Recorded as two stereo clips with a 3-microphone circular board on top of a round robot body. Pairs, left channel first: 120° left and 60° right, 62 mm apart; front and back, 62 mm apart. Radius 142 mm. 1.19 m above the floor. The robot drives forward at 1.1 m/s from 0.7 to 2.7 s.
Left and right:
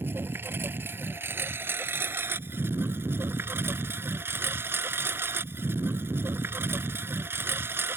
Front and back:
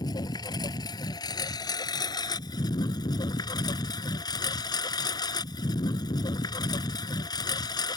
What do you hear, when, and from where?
0.0 s a lawn mower: 5° right